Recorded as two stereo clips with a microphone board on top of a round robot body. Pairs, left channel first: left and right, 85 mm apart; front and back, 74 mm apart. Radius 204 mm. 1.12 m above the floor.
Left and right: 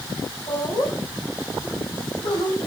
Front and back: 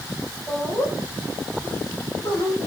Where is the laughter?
50° left, 6.5 m; by 2.6 s 65° left, 6.5 m.